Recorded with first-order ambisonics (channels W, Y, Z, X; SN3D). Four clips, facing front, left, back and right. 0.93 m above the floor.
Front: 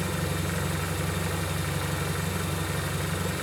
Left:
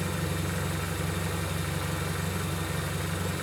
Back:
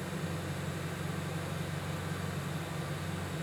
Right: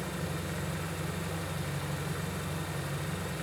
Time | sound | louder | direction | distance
0.0 | an engine running | left 4 dB, front 8 dB | 20° left | 1.7 m